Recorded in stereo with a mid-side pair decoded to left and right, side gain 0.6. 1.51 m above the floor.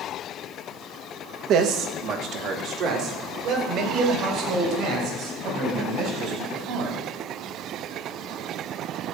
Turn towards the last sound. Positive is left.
turn(degrees=-60)